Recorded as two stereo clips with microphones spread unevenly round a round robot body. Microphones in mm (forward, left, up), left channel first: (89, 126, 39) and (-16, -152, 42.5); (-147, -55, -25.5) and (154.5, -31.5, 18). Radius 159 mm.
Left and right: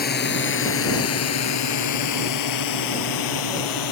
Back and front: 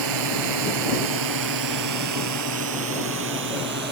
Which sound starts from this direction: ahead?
A drone, at 0.0 s.